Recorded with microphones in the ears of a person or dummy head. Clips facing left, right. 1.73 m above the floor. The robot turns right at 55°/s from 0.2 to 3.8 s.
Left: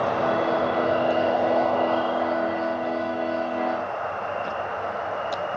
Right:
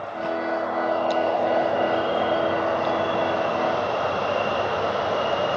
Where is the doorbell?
I don't hear a doorbell.